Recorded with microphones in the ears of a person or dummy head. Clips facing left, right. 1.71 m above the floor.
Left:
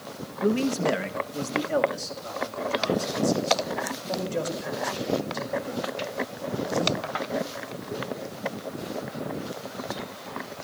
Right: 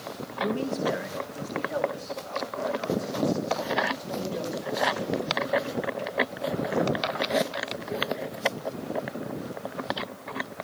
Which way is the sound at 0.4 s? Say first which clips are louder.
Left 4 dB; 30° left (ahead or behind).